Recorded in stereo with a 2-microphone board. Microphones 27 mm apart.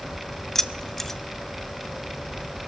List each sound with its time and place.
0.6 s keys jangling: 15° left (ahead or behind), 0.6 m